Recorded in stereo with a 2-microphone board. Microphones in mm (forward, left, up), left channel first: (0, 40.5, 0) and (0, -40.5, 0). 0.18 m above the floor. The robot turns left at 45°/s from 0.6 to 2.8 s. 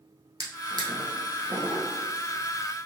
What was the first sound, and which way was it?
A drawer, 60° right (ahead or behind).